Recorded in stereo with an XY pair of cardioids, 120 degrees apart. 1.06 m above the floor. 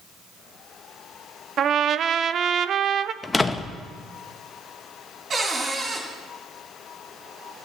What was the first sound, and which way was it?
A trumpet, 50° right.